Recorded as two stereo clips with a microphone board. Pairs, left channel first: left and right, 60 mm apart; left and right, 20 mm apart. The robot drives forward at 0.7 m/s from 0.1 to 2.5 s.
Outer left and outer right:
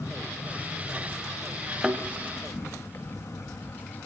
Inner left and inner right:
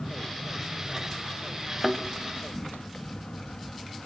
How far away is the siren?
I don't hear a siren.